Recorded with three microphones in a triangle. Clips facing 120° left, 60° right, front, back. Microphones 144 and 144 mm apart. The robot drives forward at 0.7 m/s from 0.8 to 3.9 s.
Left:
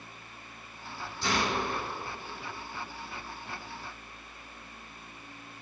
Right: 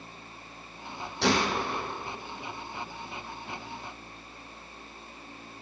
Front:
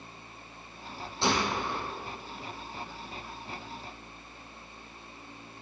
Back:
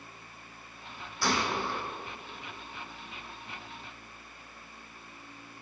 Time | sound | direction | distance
1.2 | a gunshot | 65° right | 3.5 m